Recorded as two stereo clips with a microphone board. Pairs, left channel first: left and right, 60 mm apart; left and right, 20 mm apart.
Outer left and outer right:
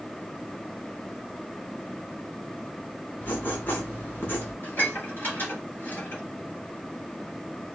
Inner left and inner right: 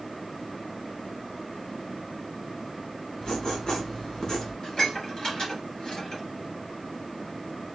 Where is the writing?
35° left (ahead or behind), 2 m.